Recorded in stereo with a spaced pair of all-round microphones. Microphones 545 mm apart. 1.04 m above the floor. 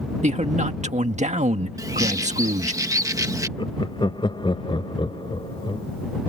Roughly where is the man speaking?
Centre.